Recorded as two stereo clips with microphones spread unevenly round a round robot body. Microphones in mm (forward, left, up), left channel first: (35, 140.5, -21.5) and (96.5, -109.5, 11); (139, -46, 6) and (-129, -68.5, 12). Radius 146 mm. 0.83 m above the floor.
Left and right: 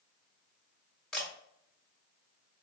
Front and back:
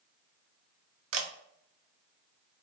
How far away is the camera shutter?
About 0.5 m.